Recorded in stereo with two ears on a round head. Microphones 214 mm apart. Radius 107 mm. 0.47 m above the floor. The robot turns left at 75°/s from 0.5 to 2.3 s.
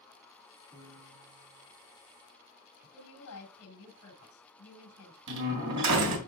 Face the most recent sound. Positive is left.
turn(degrees=-75)  # may be behind; listen again after turning